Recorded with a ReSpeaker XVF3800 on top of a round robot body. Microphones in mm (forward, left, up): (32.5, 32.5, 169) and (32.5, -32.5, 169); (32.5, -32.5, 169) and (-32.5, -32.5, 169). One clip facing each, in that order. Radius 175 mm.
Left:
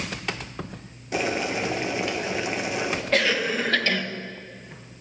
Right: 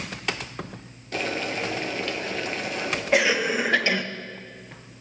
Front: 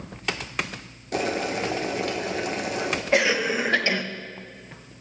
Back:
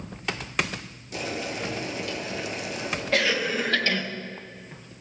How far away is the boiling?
About 1.2 m.